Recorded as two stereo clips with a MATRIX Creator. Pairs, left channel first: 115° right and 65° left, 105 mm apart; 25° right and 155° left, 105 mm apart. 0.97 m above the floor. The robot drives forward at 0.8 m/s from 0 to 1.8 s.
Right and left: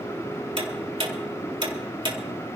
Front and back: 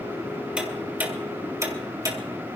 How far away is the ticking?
About 2.5 m.